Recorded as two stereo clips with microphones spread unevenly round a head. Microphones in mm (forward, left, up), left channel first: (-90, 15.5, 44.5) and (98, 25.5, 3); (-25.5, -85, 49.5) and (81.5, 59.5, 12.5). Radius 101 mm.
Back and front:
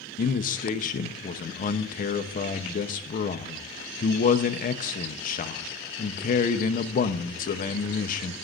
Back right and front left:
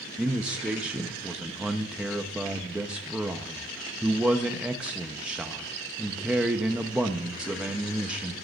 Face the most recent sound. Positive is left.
turn(degrees=130)